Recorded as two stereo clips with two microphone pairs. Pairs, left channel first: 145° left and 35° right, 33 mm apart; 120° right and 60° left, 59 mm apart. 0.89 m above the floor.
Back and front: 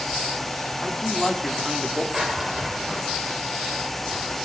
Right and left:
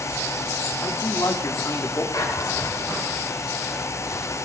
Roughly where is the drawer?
Right.